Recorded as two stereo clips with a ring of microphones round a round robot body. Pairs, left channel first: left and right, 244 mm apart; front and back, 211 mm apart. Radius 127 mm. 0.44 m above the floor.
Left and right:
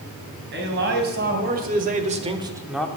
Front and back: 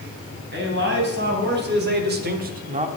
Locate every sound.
0.5 s a man speaking: 135° right, 3.5 m; by 2.9 s 170° left, 1.0 m